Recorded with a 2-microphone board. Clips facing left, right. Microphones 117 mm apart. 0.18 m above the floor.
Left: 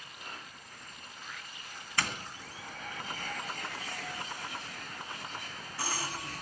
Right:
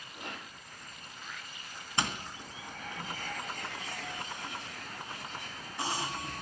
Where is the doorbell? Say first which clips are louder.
Right 2 dB; 20° right (ahead or behind), 1.9 m.